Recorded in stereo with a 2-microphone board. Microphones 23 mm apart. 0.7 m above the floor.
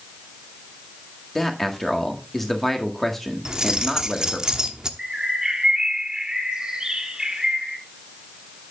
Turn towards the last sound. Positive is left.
turn(degrees=-30)  # may be behind; listen again after turning